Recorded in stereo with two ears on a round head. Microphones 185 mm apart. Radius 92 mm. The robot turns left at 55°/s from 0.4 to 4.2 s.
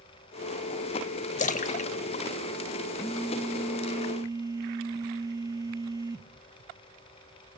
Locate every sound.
1.4 s a splash: 35° left (ahead or behind), 0.6 m
3.0 s a phone buzzing: 10° left (ahead or behind), 0.9 m; by 6.3 s 20° right (ahead or behind), 0.9 m